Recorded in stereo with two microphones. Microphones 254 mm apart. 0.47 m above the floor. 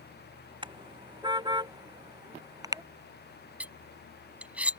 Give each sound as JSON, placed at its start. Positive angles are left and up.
{"t": 0.6, "sound": "a car horn", "side_deg": -20}
{"t": 3.6, "sound": "cutlery clinking", "side_deg": -5}